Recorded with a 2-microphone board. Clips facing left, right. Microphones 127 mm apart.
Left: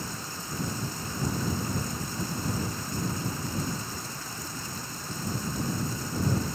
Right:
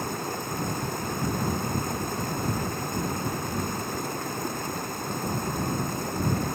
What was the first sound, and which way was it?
Running water, 60° right (ahead or behind).